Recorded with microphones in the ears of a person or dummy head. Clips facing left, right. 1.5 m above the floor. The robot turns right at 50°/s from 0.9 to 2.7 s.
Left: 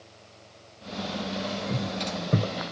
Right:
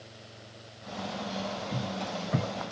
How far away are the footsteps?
About 2.5 m.